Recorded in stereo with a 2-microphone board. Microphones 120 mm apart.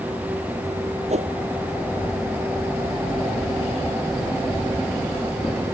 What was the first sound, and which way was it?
A whoosh, 65° right (ahead or behind).